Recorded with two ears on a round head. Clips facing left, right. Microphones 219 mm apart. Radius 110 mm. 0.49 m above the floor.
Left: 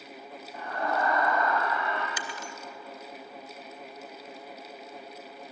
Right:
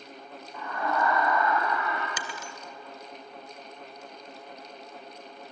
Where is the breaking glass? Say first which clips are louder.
Even; 80° right, 1.7 m.